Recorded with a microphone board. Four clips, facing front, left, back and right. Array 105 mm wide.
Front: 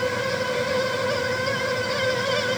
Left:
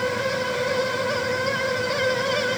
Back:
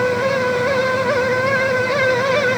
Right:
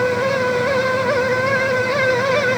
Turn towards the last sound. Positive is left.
No sound to turn to.